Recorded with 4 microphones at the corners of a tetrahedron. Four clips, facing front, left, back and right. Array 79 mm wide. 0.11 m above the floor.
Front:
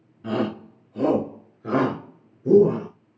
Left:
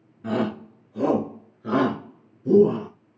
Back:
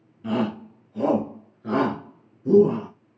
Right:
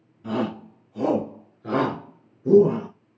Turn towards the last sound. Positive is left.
turn(degrees=-70)